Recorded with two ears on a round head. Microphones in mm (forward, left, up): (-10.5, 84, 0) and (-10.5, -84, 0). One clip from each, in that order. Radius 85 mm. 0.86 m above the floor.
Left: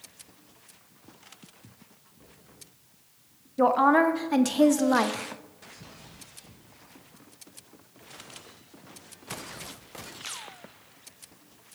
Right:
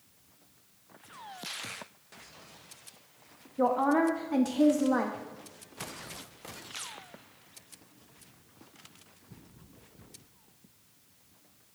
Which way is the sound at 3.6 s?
35° left (ahead or behind).